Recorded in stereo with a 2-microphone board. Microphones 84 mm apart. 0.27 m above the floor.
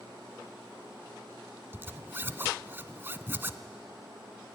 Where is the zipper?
25° right (ahead or behind), 0.6 m.